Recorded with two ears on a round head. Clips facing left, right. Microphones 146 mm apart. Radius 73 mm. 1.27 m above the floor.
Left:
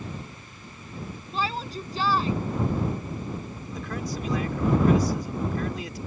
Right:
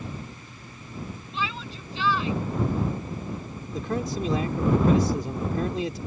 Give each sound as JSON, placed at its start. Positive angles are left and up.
{"t": 1.3, "sound": "a shout", "side_deg": 30}
{"t": 3.7, "sound": "a man speaking", "side_deg": -25}